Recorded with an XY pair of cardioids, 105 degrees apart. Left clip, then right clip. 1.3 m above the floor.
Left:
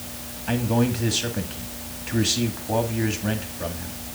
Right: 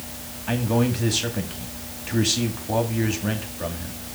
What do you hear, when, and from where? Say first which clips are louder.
0.5 s a man speaking: even; 5° right, 2 m